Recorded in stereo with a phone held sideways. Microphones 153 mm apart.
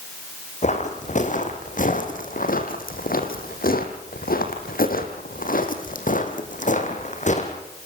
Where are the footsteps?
50° left (ahead or behind), 3.5 m.